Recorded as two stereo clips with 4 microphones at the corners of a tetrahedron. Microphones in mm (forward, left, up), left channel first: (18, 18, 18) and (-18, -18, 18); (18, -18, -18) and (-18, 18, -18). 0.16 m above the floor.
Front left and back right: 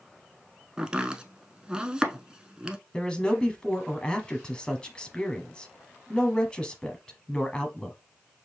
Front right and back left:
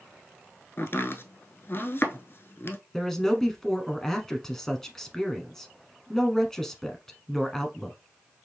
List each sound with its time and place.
0.8 s chopping: 65° right, 0.7 m
2.9 s a man speaking: 15° left, 1.0 m